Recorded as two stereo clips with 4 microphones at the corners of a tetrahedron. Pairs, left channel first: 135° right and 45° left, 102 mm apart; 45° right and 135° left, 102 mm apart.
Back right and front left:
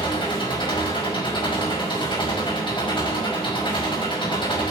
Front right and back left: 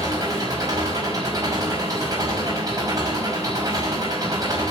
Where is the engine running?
170° right, 5.5 m.